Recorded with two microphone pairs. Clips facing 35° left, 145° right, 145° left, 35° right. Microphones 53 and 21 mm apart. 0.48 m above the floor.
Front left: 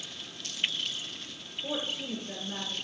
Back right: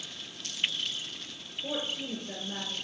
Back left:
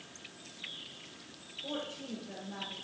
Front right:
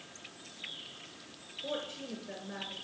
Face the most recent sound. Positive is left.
turn(degrees=-65)